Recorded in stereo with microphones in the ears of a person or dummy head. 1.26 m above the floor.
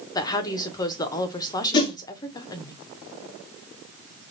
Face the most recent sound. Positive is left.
turn(degrees=20)  # may be behind; listen again after turning